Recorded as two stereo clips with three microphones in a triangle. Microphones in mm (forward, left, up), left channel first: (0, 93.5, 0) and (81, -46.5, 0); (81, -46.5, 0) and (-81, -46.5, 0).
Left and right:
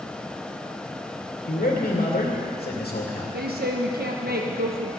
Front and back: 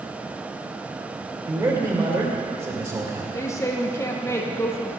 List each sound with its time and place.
1.5 s a man speaking: 120° left, 2.5 m
3.3 s a woman speaking: 75° right, 0.9 m